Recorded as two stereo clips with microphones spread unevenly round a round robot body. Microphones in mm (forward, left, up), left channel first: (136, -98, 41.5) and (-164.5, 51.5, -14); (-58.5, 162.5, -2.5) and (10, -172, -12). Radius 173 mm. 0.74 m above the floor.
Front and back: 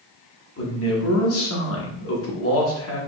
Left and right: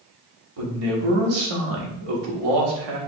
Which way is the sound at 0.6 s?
80° right.